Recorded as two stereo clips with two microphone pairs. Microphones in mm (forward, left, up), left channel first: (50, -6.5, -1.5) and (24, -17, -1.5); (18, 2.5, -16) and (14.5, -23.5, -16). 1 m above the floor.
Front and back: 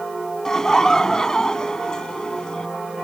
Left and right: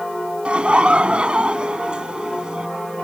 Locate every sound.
0.5 s laughter: 50° right; by 2.7 s 40° right